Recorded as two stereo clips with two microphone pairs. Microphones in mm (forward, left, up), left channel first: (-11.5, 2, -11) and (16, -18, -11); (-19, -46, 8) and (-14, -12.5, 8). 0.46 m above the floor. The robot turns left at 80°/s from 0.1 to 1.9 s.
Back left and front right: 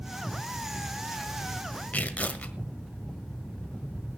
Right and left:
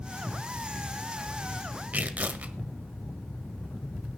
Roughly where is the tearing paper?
Left.